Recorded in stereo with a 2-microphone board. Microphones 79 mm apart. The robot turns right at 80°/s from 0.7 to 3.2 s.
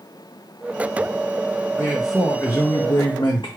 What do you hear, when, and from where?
1.8 s a man speaking: 20° right, 0.8 m; by 3.5 s 90° left, 0.8 m